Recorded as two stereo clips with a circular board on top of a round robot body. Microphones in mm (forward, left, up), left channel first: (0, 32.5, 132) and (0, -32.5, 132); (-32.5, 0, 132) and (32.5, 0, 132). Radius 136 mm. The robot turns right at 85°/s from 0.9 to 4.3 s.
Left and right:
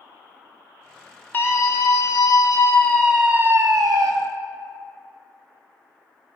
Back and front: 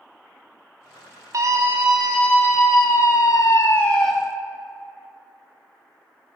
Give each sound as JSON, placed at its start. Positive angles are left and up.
{"t": 1.3, "sound": "a scream", "azimuth_deg": 30, "distance_m": 3.0}